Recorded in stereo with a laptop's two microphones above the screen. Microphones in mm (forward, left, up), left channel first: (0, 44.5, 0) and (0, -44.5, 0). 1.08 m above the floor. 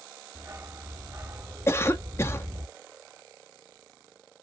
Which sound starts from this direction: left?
A cough, at 1.7 s.